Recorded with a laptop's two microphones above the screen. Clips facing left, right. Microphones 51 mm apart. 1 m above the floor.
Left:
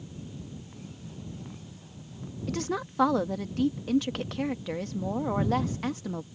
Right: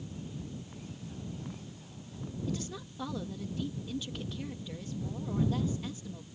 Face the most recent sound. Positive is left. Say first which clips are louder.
# left 10 dB
turn(degrees=65)  # may be behind; listen again after turning